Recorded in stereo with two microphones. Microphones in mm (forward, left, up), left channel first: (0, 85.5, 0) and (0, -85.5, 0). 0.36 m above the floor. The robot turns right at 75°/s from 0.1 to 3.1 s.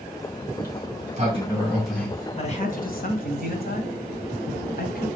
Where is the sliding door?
100° right, 3 m; by 2.3 s 30° left, 3 m.